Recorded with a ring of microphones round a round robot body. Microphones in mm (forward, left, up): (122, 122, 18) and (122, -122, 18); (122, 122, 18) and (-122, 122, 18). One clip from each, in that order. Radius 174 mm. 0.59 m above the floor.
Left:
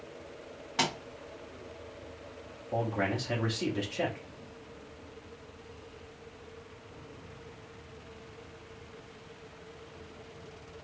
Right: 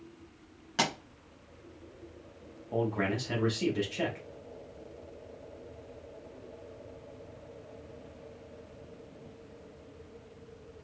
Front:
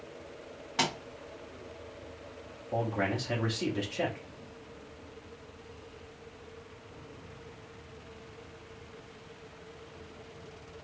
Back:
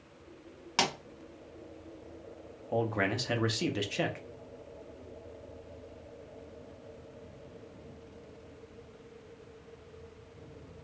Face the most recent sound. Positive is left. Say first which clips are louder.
# even, back 1 dB
turn(degrees=180)